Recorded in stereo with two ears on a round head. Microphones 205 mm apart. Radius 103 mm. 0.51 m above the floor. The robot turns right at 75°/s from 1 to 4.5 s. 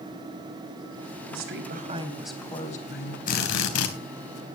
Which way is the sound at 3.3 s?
40° left.